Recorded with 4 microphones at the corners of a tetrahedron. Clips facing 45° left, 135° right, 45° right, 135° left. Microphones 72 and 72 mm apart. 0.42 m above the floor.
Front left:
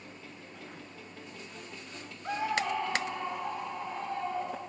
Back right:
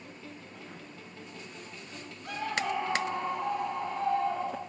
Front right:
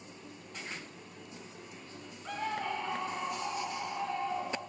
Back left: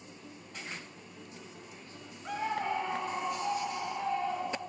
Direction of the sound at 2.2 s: 65° left.